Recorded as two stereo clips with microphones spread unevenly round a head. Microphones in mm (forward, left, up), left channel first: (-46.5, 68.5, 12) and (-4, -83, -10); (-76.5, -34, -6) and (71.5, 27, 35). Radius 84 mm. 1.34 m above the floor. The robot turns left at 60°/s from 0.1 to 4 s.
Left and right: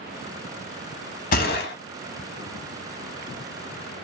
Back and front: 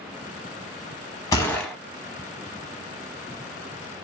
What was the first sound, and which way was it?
A gunshot, 140° left.